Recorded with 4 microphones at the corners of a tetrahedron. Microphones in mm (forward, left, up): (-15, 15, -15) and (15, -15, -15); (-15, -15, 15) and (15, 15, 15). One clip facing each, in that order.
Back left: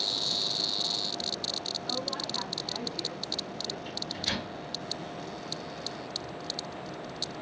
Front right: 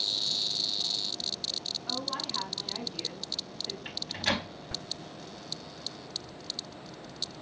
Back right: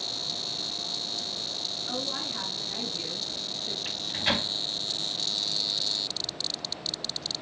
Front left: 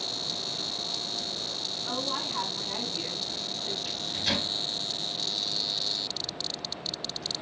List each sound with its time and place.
1.9 s a woman speaking: 30° left, 3 m
3.9 s a microwave: 80° right, 0.9 m